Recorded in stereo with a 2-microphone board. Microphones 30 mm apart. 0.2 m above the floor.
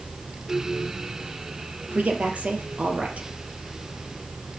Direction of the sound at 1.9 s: 45° right (ahead or behind).